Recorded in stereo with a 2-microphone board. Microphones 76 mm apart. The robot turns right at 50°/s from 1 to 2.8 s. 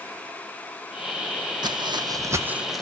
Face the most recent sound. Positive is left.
turn(degrees=5)  # may be behind; listen again after turning